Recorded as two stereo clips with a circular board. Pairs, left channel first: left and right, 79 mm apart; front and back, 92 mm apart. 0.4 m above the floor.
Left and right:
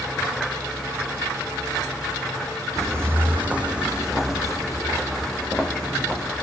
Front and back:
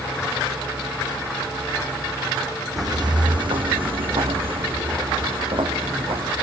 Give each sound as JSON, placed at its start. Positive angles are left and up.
{"t": 2.8, "sound": "footsteps", "azimuth_deg": -135, "distance_m": 1.0}